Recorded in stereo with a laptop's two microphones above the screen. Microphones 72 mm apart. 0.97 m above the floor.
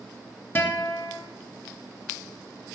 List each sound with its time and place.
0.6 s a guitar: 30° left (ahead or behind), 0.8 m